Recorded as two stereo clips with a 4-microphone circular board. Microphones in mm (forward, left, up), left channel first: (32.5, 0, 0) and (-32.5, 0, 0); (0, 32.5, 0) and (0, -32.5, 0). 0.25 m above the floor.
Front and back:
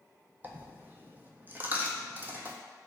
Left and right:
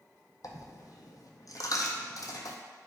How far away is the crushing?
No crushing in this recording.